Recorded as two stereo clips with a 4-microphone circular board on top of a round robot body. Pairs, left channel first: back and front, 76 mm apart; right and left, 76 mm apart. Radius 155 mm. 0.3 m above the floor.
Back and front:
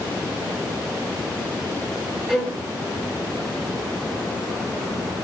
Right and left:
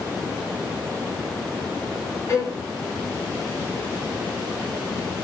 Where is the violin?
90° right, 1.2 m.